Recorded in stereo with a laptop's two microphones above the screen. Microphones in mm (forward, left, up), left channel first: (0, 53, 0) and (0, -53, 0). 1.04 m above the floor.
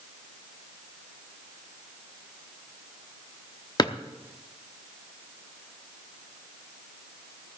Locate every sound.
3.8 s a drawer: 40° left (ahead or behind), 0.8 m